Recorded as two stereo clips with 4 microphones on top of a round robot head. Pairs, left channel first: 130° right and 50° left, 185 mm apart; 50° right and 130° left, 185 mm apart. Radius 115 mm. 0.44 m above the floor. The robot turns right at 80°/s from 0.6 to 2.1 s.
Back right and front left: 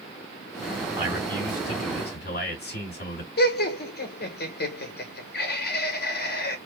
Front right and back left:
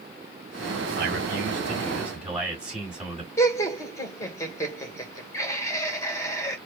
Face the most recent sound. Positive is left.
turn(degrees=-125)